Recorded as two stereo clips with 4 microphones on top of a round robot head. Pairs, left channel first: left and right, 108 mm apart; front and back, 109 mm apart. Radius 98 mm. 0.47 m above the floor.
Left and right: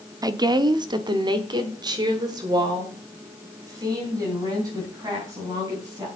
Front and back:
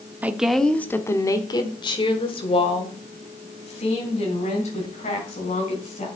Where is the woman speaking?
115° right, 0.9 m; by 6.1 s 25° right, 4.5 m.